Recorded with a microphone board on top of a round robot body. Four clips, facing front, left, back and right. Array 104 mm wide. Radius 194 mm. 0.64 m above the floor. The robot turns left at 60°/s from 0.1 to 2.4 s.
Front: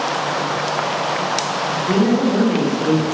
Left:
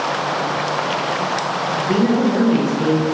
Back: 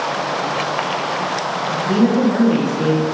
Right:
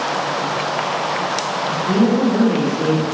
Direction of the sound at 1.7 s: 150° right.